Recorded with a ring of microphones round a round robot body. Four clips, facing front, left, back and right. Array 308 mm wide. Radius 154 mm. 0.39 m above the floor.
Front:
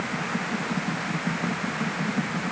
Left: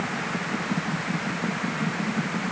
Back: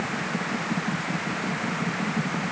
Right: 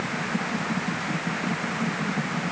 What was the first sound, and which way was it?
Only background noise.